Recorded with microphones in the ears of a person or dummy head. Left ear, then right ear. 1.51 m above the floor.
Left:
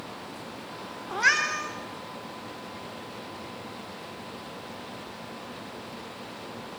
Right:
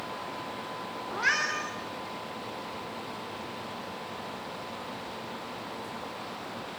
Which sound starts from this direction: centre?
A cat meowing, at 1.1 s.